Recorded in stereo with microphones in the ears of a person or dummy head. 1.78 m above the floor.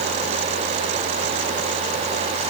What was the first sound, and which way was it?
Only background noise.